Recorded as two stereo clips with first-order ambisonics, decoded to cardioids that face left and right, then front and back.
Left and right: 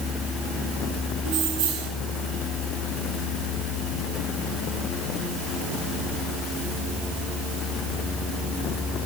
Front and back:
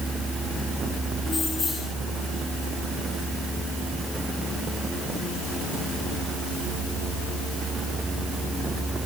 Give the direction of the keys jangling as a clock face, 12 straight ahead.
2 o'clock.